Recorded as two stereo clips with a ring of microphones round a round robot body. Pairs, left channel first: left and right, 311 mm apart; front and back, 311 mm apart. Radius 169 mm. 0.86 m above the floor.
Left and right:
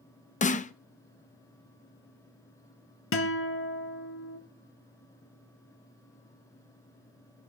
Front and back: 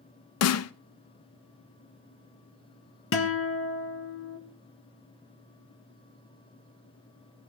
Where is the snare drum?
25° left, 0.7 m.